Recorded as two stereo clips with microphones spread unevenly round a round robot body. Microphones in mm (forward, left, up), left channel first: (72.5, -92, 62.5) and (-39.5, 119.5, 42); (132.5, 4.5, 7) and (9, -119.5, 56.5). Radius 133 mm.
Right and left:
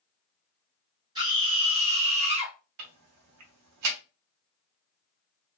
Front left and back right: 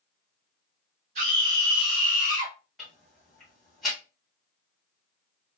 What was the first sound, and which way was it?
A scream, 175° left.